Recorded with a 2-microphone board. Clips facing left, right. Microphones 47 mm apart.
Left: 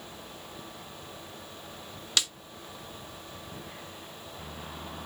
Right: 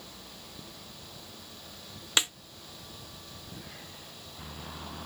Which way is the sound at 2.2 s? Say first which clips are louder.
Right 2 dB; 25° right (ahead or behind).